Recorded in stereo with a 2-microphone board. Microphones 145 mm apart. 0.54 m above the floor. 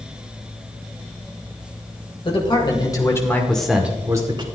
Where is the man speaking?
40° left (ahead or behind), 3 m; by 4.5 s 35° right (ahead or behind), 2 m.